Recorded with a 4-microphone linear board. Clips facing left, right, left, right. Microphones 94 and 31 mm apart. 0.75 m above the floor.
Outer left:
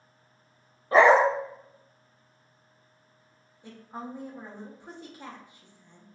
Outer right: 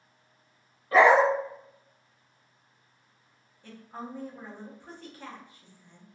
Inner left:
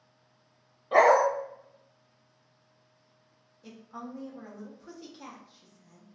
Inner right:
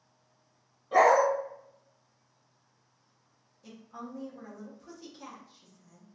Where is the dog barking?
30° left (ahead or behind), 0.5 m.